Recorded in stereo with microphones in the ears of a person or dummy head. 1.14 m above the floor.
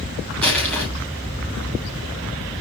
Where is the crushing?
10° left (ahead or behind), 8 m.